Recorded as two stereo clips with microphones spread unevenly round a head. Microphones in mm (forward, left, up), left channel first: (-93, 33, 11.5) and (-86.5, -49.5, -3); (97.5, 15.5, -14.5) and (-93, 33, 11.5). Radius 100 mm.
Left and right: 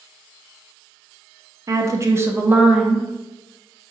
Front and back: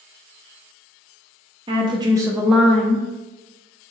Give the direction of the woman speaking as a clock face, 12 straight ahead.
4 o'clock.